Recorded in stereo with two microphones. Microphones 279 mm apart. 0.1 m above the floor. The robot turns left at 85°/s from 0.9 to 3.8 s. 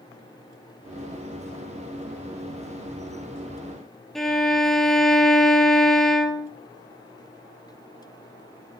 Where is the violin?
Centre (ahead or behind), 0.8 m.